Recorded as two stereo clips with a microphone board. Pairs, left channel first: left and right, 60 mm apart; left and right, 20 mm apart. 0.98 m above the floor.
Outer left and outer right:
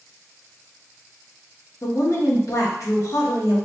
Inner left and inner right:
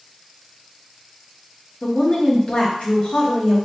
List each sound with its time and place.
1.8 s a woman speaking: 55° left (ahead or behind), 1.3 m